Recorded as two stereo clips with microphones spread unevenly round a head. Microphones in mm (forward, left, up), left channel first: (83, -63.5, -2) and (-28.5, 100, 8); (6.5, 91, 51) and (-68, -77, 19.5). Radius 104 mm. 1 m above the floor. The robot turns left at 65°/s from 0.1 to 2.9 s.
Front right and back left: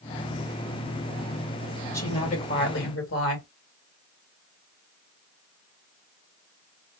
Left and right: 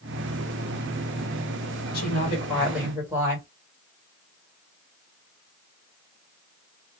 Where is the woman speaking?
20° left, 1.6 m; by 3.5 s 40° right, 1.6 m.